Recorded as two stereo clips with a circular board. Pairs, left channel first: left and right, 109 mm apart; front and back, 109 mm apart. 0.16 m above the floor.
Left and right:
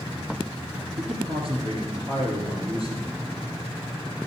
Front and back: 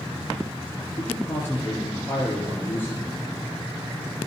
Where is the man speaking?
70° right, 3 m.